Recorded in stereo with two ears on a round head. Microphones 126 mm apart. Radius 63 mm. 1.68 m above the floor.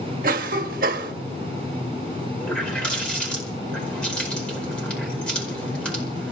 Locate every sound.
0.2 s a cough: 65° right (ahead or behind), 1.3 m
2.4 s a running tap: 10° left (ahead or behind), 5 m